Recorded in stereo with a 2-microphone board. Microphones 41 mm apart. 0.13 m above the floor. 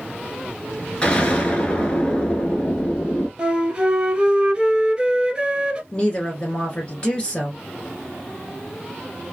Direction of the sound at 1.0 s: 25° left (ahead or behind).